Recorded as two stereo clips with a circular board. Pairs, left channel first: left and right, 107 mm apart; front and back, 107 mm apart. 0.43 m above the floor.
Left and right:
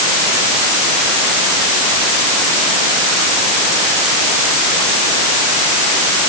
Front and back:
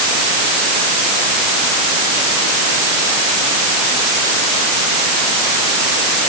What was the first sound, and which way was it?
Only background noise.